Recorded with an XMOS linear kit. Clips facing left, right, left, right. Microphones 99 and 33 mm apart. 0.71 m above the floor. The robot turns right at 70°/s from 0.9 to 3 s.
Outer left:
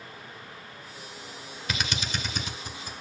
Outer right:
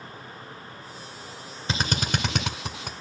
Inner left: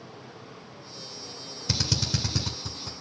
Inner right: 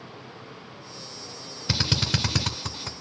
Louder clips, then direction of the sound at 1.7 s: Outer right 5 dB, inner right 3 dB; 30° right (ahead or behind).